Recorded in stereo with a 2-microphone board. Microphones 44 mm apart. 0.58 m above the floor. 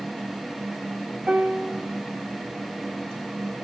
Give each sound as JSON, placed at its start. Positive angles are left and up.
{"t": 1.3, "sound": "a piano", "side_deg": -25, "distance_m": 1.3}